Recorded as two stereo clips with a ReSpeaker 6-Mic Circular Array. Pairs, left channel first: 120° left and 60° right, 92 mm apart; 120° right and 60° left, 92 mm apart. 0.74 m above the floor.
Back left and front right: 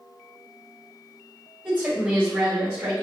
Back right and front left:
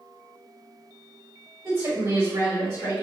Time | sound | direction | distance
1.6 | a woman speaking | 10° left | 1.9 m